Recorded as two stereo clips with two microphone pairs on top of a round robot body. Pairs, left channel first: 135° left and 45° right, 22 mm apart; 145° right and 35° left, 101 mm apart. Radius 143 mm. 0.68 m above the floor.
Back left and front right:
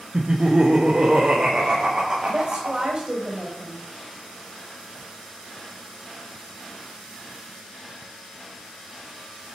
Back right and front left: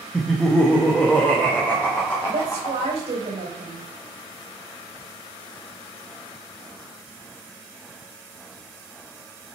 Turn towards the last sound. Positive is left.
turn(degrees=5)